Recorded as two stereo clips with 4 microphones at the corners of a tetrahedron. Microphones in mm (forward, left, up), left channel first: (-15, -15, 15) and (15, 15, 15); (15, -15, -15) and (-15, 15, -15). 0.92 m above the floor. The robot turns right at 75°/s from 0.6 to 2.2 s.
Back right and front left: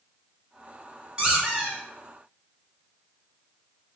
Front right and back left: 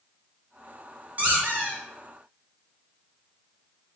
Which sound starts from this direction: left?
A squeak, at 1.2 s.